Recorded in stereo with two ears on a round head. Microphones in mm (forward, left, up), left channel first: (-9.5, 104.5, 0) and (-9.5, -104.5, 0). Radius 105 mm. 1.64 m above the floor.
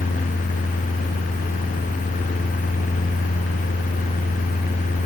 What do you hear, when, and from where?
Only background noise.